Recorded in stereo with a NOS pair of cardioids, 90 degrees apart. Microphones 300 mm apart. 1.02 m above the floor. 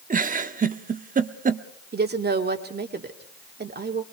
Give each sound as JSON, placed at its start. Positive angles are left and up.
{"t": 0.1, "sound": "a giggle", "azimuth_deg": -30, "distance_m": 1.1}
{"t": 1.9, "sound": "a woman speaking", "azimuth_deg": -35, "distance_m": 2.5}